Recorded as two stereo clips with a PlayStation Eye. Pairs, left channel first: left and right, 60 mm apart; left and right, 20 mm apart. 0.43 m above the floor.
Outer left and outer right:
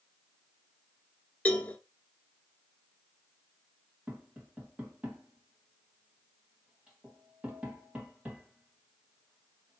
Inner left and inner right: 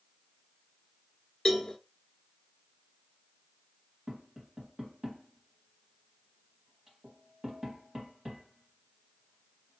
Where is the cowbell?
25° left (ahead or behind), 1.2 m.